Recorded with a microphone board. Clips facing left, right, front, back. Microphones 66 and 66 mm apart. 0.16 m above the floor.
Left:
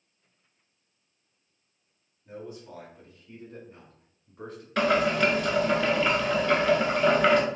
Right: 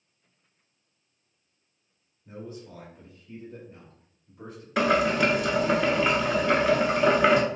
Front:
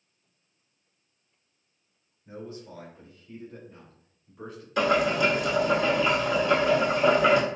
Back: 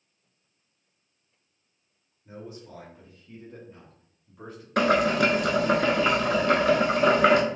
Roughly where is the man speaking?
Behind.